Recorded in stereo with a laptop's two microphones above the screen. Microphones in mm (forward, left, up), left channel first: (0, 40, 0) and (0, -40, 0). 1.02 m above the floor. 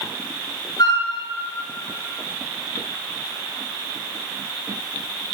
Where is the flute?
55° left (ahead or behind), 5.5 m.